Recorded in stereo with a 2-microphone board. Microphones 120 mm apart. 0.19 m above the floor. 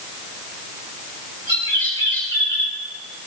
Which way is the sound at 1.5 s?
40° left (ahead or behind).